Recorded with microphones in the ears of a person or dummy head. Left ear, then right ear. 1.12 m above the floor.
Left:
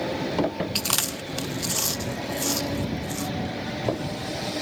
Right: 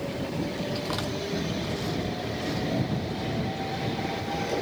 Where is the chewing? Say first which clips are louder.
Left 4 dB; 55° left (ahead or behind).